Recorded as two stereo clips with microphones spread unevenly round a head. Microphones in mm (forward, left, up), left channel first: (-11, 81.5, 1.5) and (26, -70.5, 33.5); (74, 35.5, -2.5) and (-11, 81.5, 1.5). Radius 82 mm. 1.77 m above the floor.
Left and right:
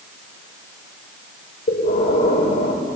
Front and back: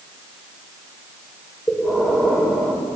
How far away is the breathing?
About 5.5 m.